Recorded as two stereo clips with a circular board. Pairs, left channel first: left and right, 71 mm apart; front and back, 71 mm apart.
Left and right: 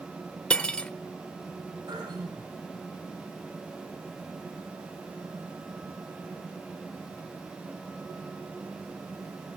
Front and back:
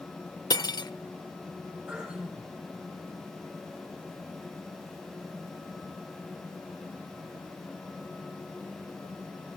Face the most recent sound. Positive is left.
turn(degrees=-100)